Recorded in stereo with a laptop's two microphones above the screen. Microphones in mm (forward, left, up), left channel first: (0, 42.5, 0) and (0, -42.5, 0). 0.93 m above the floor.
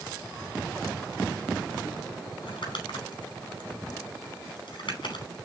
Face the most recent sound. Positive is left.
turn(degrees=65)  # may be behind; listen again after turning